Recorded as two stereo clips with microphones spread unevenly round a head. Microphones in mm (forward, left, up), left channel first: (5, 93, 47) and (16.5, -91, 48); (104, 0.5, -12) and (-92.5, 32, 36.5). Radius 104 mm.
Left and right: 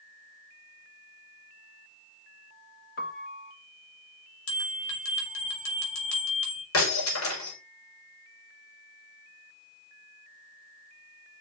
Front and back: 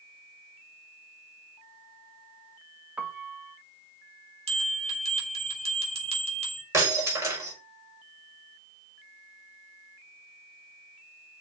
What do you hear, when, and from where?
3.0 s a piano: 110° left, 1.2 m
4.5 s a bell: 115° left, 3.5 m
6.7 s breaking glass: 95° left, 5.5 m